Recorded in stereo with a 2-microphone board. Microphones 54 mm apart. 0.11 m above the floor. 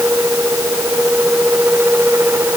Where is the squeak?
I don't hear a squeak.